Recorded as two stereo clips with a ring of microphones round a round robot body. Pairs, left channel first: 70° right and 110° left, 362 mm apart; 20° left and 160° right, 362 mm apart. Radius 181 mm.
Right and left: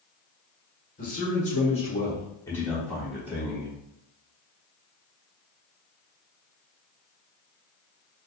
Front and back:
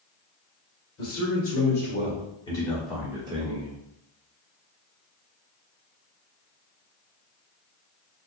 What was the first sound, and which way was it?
A man speaking, 5° right.